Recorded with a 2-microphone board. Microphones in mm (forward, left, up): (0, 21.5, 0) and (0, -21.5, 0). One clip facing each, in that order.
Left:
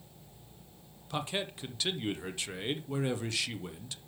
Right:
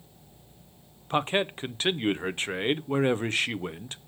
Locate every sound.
1.1 s a man speaking: 40° right (ahead or behind), 0.6 m